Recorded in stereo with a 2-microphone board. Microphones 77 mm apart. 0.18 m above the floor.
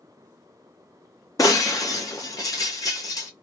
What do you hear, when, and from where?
1.4 s breaking glass: 50° left (ahead or behind), 1.1 m